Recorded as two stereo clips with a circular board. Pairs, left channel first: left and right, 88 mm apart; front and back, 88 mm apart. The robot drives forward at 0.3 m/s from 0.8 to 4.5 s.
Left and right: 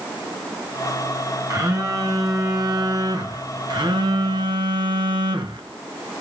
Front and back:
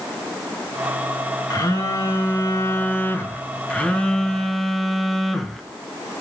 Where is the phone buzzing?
45° right, 1.4 m; by 5.6 s 90° right, 1.0 m.